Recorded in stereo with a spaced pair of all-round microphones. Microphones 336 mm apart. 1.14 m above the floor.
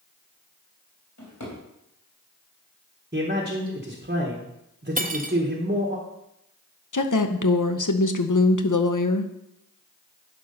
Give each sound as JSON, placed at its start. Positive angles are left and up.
{"t": 1.2, "sound": "a drawer", "side_deg": 55, "distance_m": 4.0}
{"t": 3.1, "sound": "a man speaking", "side_deg": -30, "distance_m": 1.3}
{"t": 5.0, "sound": "cutlery clinking", "side_deg": -25, "distance_m": 0.7}
{"t": 6.9, "sound": "a woman speaking", "side_deg": 65, "distance_m": 0.8}